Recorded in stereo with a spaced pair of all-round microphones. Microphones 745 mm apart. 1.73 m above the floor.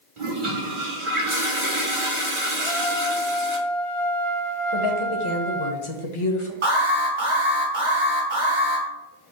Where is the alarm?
75° right (ahead or behind), 2 m.